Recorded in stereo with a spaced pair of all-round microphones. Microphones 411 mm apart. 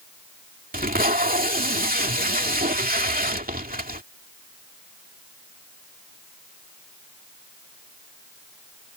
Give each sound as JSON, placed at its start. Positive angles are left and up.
{"t": 0.7, "sound": "tape being pulled", "side_deg": -20}